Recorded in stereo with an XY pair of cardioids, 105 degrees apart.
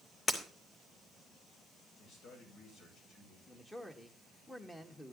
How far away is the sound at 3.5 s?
About 2.5 m.